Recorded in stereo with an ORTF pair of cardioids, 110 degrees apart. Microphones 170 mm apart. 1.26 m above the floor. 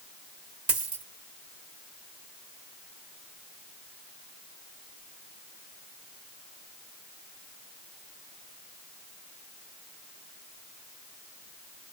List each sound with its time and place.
0.7 s a dropped coin: 30° right, 1.8 m